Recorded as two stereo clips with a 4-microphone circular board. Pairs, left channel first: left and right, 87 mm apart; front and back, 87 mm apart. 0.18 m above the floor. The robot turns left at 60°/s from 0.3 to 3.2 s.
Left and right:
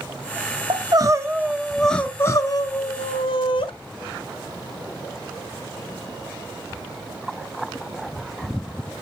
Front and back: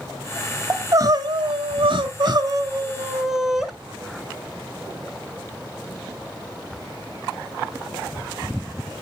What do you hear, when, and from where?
0.7 s crying: 115° right, 0.6 m; by 3.7 s 95° left, 0.6 m